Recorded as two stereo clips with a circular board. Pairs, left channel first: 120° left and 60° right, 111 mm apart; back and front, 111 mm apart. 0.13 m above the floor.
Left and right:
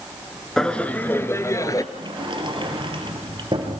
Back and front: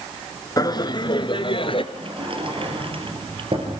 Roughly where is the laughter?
Behind.